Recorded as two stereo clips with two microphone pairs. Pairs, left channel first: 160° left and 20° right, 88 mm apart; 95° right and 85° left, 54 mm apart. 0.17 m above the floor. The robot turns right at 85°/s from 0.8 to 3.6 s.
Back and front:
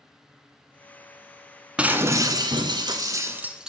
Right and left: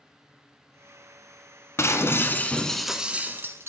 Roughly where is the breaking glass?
Right.